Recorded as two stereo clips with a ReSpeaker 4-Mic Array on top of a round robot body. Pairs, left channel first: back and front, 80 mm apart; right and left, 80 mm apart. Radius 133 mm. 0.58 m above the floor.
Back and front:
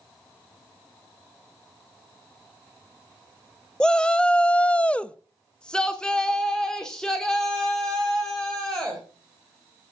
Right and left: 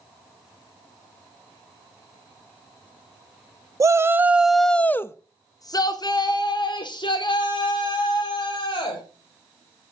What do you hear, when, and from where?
3.8 s a shout: 105° left, 0.9 m; by 9.0 s 95° right, 3.5 m